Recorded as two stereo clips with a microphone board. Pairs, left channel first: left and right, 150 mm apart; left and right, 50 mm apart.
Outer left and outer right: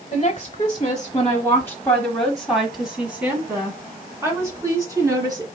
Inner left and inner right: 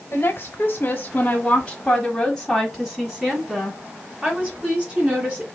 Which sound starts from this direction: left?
A woman speaking, at 0.1 s.